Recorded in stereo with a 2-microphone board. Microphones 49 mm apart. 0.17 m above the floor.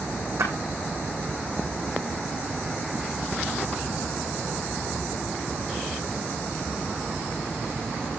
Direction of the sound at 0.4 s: 80° right.